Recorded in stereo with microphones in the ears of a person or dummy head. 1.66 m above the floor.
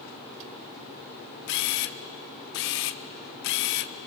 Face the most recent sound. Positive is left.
turn(degrees=55)  # may be behind; listen again after turning